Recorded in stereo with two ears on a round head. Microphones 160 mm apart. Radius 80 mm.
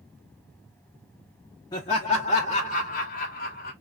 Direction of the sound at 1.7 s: 25° left (ahead or behind).